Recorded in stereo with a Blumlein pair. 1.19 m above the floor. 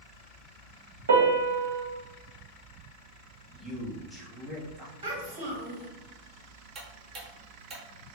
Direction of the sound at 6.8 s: 25° right.